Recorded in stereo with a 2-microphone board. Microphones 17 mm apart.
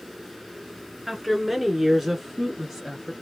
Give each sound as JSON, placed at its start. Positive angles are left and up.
{"t": 1.1, "sound": "a woman speaking", "side_deg": -5, "distance_m": 1.2}